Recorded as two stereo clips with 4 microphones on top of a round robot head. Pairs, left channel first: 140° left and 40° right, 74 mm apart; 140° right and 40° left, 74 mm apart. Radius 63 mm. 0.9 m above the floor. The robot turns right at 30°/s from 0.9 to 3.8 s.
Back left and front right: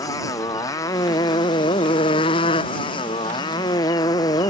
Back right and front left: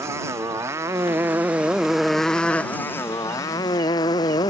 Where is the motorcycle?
95° left; by 4.5 s straight behind.